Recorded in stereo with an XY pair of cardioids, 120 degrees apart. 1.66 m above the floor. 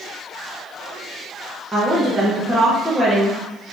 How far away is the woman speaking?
About 1.4 m.